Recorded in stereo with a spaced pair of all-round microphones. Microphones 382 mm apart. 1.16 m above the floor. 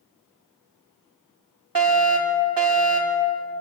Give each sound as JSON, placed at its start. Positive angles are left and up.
{"t": 1.8, "sound": "a fire alarm", "side_deg": -60, "distance_m": 5.5}